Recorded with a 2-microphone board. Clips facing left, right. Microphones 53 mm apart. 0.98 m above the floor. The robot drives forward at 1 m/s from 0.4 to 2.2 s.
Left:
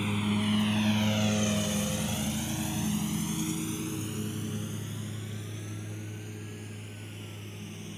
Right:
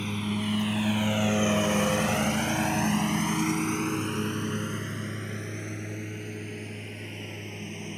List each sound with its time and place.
0.0 s a lawn mower: 5° left (ahead or behind); by 8.0 s 55° right (ahead or behind)